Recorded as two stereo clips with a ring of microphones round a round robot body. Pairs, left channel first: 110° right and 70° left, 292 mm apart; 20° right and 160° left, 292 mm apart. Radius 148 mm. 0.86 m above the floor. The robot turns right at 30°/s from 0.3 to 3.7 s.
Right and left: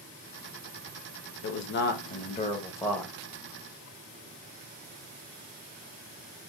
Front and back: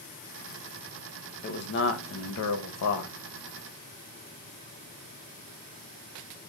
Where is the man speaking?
75° right, 0.7 m; by 3.1 s 25° right, 0.7 m.